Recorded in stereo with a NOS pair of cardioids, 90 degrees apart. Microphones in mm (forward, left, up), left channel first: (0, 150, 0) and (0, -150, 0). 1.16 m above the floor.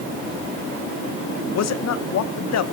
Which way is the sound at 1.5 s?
60° left.